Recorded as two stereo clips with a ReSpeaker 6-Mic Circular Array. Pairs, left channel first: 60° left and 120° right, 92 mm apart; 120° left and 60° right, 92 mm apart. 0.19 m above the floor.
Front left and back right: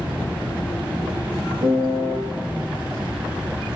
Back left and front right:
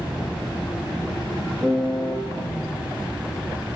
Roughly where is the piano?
Behind right.